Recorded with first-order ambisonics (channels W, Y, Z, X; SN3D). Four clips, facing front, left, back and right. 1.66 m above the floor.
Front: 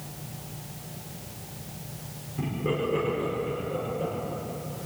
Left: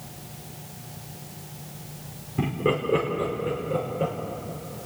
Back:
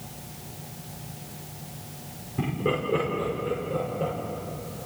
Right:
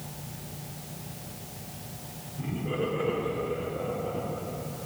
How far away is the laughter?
About 5.5 m.